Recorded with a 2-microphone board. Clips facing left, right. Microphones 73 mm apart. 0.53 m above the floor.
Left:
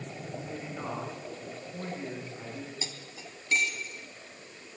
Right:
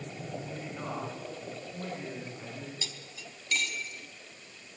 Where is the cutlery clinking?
25° left (ahead or behind), 2 m.